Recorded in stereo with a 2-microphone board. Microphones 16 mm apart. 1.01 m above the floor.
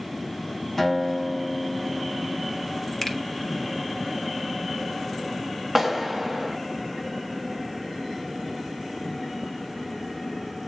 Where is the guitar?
15° left (ahead or behind), 1.9 m.